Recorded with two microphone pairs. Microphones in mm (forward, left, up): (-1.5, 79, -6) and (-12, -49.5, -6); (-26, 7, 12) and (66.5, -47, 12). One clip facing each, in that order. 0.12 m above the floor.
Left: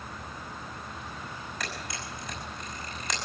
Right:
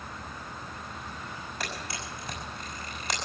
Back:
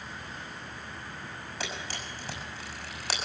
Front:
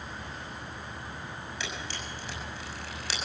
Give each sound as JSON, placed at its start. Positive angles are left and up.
{"t": 1.6, "sound": "a camera shutter", "azimuth_deg": -160, "distance_m": 6.0}